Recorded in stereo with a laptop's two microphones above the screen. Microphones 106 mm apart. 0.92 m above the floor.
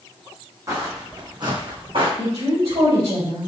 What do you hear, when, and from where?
0.7 s footsteps: 35° right (ahead or behind), 2 m; by 2.1 s 55° right (ahead or behind), 2.5 m
2.2 s a woman speaking: 75° right (ahead or behind), 3.5 m